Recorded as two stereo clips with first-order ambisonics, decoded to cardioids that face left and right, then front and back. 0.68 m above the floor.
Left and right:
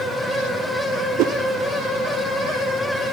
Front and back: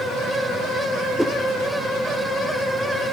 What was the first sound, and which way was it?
A whoosh, 95° right.